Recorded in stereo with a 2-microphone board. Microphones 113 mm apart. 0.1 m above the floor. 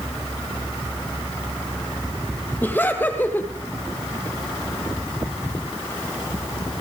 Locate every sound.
2.6 s laughter: 15° left (ahead or behind), 3 m